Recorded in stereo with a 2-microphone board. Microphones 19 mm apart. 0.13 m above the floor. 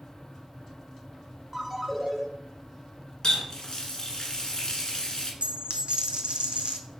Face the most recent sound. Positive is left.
turn(degrees=-85)